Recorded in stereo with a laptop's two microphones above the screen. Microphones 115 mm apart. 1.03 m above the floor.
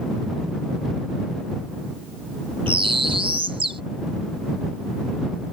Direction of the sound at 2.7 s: 50° right (ahead or behind).